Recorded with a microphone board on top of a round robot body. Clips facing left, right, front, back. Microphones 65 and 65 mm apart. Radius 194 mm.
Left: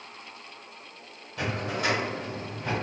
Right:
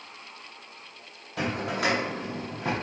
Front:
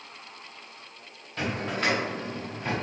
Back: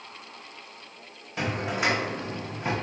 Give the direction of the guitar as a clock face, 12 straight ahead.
No guitar in this recording.